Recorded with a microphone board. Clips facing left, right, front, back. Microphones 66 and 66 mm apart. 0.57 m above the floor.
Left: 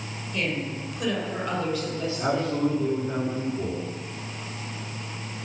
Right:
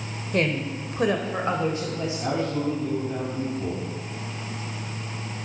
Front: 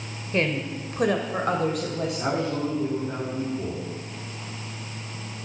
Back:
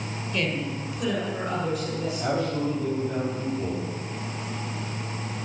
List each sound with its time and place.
0.3 s a woman speaking: 55° right, 1.7 m; by 2.6 s 15° right, 2.5 m
2.2 s a man speaking: 55° left, 7 m